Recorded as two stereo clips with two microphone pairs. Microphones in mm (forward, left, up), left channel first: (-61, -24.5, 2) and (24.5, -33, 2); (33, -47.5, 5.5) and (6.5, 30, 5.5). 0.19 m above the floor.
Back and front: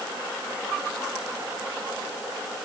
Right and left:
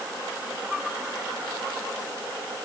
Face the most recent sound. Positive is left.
No sound to turn to.